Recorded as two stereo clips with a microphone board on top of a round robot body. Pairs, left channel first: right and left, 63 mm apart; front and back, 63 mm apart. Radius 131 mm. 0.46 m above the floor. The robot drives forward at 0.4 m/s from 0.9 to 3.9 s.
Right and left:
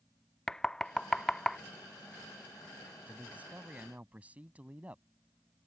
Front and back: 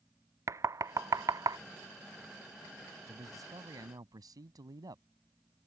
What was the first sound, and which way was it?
Knocking, 170° right.